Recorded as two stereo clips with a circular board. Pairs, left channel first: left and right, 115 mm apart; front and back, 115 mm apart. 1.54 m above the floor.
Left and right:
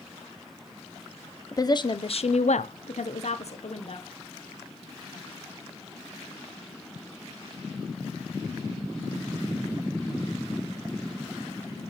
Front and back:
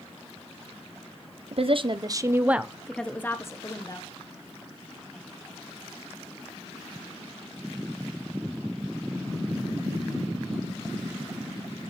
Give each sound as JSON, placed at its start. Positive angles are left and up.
{"t": 1.5, "sound": "a woman speaking", "azimuth_deg": 150, "distance_m": 0.7}